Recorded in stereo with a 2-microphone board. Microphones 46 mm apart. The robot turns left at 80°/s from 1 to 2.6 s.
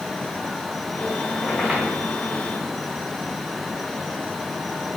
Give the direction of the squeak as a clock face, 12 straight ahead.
11 o'clock.